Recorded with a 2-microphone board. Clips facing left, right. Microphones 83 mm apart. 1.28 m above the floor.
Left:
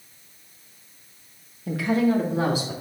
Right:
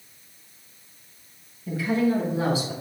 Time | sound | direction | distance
1.7 | a woman speaking | 75° left (ahead or behind) | 1.2 m